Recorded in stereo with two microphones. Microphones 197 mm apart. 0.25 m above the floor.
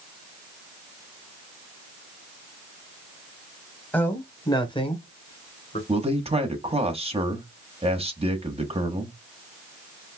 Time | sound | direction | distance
3.9 | a man speaking | 10° left (ahead or behind) | 1.5 m
5.9 | a man speaking | 30° right (ahead or behind) | 1.5 m